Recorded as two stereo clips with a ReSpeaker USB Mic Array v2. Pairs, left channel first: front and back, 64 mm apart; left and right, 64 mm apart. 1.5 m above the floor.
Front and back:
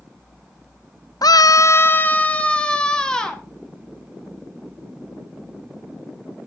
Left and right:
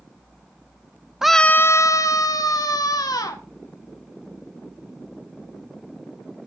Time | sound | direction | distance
1.2 | a scream | 10° right | 0.6 m